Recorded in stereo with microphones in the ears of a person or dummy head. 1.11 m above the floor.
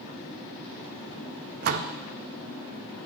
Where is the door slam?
45° right (ahead or behind), 0.6 m.